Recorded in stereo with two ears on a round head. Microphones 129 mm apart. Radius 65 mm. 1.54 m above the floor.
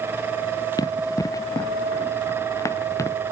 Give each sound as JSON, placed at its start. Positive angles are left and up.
{"t": 0.8, "sound": "running footsteps", "side_deg": 25}